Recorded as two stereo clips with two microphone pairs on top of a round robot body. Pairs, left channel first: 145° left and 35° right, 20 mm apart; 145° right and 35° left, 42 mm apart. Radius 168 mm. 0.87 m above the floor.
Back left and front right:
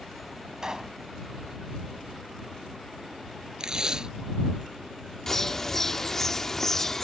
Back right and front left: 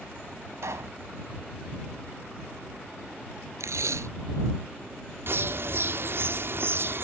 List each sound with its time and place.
0.6 s a pop: 25° left
3.6 s tape being pulled: 25° left
5.3 s a bird: 75° left